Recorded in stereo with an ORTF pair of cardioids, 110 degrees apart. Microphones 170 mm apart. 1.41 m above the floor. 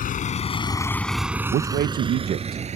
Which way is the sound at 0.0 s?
55° left.